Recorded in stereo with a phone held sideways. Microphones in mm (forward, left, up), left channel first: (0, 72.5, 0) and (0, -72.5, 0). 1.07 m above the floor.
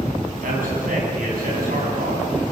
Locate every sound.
0.4 s a man speaking: 65° right (ahead or behind), 9.5 m; by 2.3 s 80° right, 9.5 m